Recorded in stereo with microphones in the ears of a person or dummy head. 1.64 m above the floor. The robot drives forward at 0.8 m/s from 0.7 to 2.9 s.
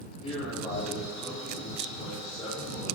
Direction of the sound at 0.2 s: 45° left (ahead or behind).